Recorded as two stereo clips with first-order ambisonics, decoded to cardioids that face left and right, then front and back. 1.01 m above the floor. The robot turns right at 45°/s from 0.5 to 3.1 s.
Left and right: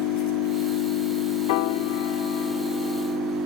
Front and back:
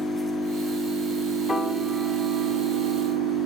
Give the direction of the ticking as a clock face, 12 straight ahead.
No ticking in this recording.